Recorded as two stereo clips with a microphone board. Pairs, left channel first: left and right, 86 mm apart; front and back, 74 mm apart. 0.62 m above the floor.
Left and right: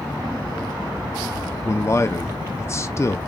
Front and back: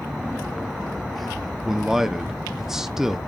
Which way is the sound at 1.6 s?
100° left.